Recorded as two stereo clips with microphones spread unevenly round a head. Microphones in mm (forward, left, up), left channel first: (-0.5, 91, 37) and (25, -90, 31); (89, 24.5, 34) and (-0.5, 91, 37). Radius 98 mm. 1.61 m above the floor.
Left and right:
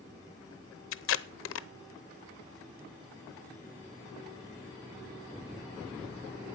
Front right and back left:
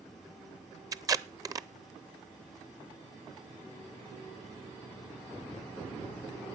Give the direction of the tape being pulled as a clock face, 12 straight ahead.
9 o'clock.